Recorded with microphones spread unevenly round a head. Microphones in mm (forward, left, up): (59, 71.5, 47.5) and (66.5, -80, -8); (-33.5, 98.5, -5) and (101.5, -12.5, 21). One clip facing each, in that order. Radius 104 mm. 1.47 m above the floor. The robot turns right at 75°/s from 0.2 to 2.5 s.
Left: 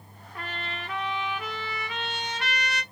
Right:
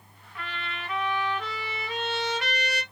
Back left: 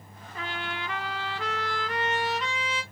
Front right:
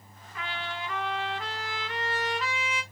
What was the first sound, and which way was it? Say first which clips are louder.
A trumpet: left 1 dB, back left 1 dB; 85° left.